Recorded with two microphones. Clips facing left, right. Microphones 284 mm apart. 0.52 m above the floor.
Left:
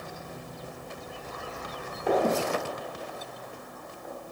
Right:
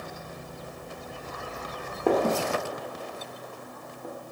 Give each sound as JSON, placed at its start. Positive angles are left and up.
{"t": 2.1, "sound": "a gunshot", "side_deg": -60, "distance_m": 0.8}